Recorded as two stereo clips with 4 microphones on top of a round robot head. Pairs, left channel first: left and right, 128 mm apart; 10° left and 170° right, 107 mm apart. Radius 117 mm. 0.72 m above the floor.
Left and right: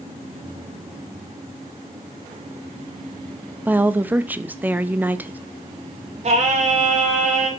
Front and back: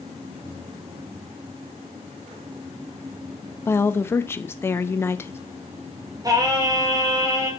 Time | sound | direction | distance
3.6 | a woman speaking | 25° right | 0.6 m
6.2 | singing | 115° right | 1.8 m